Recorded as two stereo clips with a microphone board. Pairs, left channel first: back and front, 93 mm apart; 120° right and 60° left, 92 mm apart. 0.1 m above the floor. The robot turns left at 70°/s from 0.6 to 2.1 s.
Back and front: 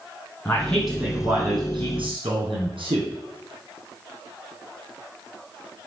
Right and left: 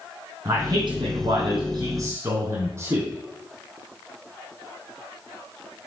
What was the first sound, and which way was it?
A man speaking, 110° left.